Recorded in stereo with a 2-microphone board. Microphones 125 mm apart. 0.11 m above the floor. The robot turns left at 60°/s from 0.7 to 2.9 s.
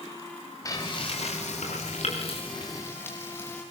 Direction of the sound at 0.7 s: 150° left.